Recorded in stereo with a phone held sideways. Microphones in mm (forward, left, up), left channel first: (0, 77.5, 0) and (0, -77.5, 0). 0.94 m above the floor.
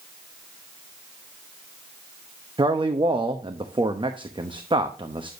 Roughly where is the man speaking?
Right.